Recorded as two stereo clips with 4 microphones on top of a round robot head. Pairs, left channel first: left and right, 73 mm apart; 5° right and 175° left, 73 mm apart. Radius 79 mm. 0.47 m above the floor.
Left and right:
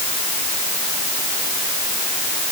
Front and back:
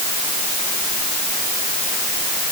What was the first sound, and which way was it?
Only background noise.